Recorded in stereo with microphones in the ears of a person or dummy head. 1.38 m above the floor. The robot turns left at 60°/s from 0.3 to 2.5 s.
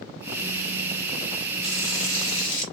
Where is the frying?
110° left, 1.7 m; by 2.6 s 55° left, 1.7 m.